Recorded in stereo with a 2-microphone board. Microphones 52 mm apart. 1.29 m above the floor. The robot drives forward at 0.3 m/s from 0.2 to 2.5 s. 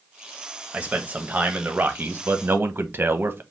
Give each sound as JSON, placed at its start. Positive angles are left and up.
{"t": 0.7, "sound": "a man speaking", "side_deg": -25, "distance_m": 1.1}